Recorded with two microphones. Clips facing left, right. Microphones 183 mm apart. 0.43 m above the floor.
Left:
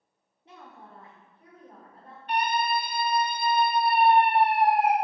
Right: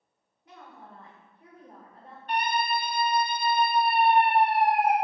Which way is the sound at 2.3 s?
40° right (ahead or behind).